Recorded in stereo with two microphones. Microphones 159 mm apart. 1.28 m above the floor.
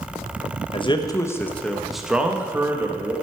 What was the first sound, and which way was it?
A man speaking, 35° left (ahead or behind).